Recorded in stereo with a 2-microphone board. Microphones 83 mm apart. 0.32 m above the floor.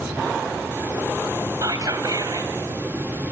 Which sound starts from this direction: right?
Whispering, at 1.6 s.